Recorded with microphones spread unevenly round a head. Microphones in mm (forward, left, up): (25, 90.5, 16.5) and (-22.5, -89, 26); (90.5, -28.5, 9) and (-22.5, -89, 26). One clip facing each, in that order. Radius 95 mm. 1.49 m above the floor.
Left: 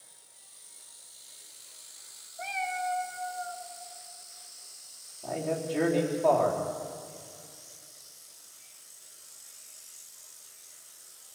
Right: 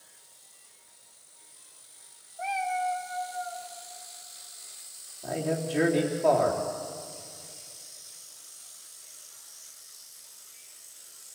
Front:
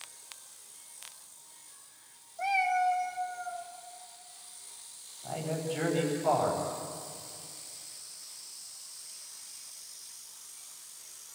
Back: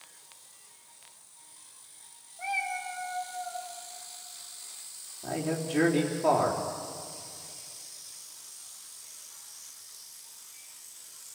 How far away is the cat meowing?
About 1.3 m.